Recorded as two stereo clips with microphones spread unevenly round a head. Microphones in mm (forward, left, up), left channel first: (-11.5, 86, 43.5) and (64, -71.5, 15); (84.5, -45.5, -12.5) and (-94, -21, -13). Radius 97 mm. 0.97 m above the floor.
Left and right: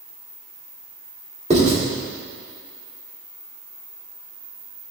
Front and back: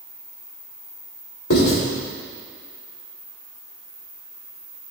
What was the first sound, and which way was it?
Writing, 15° right.